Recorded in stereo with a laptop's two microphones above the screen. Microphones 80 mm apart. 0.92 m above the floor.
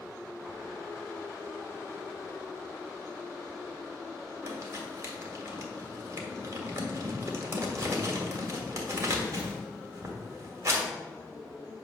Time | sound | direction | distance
4.4 | crumpling | 40° right (ahead or behind) | 1.7 m